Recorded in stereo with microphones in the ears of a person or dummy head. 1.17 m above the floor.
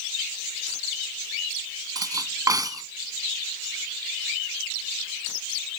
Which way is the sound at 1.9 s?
20° right (ahead or behind).